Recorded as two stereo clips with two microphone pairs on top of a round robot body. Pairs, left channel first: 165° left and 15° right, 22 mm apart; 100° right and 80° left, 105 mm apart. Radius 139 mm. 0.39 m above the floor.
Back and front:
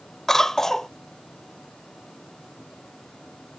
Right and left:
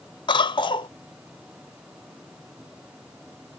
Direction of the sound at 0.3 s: 130° right.